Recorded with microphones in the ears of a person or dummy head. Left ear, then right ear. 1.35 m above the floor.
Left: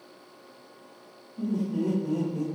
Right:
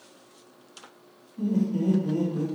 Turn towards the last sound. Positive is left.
turn(degrees=50)  # may be behind; listen again after turning